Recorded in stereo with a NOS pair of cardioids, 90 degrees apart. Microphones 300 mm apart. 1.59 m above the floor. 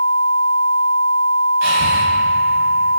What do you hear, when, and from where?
1.6 s breathing: 60° right, 4.5 m